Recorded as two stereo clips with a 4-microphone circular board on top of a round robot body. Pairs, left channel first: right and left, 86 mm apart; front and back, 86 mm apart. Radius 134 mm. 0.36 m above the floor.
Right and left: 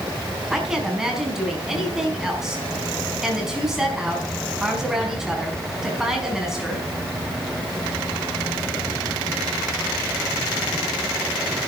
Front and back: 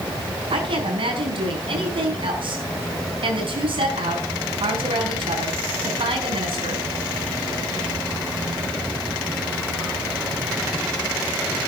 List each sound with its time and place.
0.5 s a woman speaking: 175° left, 5 m